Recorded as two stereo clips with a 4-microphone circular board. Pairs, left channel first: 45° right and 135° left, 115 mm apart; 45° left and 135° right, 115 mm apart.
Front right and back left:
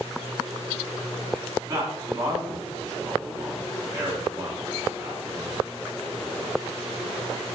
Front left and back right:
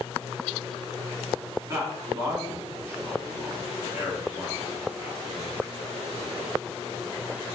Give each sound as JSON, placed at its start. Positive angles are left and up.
{"t": 1.7, "sound": "a man speaking", "azimuth_deg": 175, "distance_m": 2.0}